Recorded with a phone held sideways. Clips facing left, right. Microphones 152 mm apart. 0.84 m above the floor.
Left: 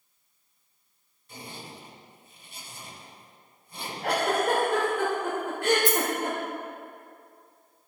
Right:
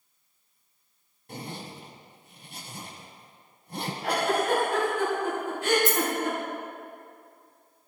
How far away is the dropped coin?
About 1.6 m.